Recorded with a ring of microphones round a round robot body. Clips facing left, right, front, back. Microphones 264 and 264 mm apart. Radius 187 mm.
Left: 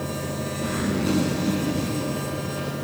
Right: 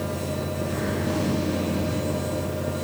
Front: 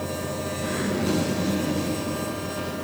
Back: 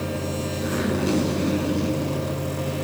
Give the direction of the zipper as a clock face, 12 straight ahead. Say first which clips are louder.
Left 4 dB, back 2 dB; 9 o'clock.